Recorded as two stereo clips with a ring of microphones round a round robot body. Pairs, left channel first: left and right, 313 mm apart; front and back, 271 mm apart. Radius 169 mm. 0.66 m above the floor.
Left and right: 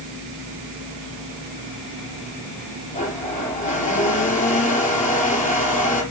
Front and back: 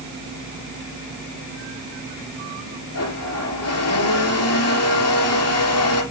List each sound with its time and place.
2.9 s a blender: 25° left, 5.5 m